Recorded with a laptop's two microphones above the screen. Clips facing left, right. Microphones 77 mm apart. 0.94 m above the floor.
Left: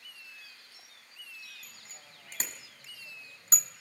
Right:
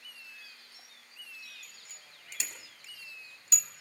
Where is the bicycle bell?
40° left (ahead or behind), 5.5 m.